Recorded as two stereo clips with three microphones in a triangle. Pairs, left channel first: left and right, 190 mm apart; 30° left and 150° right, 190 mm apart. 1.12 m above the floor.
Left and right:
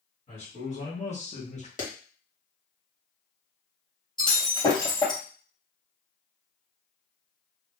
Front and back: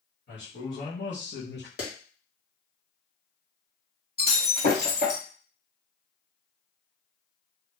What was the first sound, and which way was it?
A man speaking, 40° left.